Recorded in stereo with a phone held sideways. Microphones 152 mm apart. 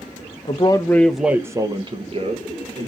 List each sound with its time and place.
0.5 s a man speaking: 40° left (ahead or behind), 0.6 m; by 2.9 s 55° right (ahead or behind), 1.1 m